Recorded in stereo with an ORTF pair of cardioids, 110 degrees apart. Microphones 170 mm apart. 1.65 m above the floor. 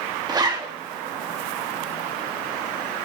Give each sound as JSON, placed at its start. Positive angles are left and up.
{"t": 0.3, "sound": "a zipper", "azimuth_deg": -25, "distance_m": 3.5}